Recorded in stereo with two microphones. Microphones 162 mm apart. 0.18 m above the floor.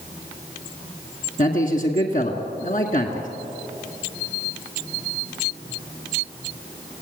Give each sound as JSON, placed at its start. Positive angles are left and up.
{"t": 1.4, "sound": "a man speaking", "side_deg": 55, "distance_m": 2.0}